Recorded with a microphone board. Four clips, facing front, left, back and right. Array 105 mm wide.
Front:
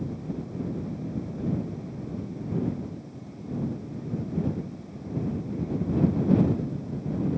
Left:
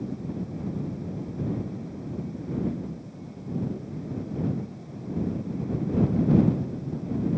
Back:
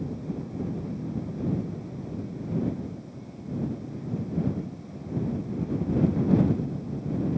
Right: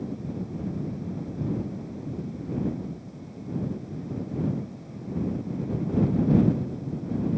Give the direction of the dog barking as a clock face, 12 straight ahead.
I don't hear a dog barking.